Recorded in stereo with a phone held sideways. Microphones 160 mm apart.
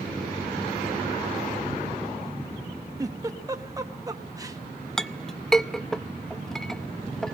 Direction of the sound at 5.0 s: 5° left (ahead or behind).